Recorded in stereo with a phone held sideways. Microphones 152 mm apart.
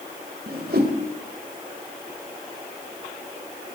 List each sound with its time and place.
0.5 s a whoosh: 75° right (ahead or behind), 2.5 m